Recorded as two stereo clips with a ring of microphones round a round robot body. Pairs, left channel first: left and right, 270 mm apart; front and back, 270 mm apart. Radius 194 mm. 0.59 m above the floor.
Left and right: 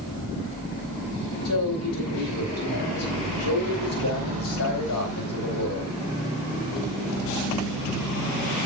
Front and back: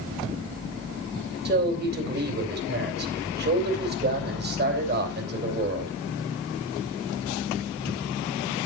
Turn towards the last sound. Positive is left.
turn(degrees=130)